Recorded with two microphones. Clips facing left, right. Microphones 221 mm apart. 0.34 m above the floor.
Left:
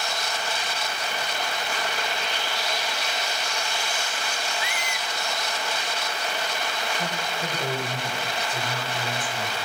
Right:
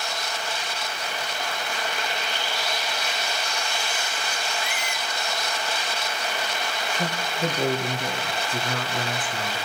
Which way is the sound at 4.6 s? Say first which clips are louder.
Right 1 dB; 55° right (ahead or behind).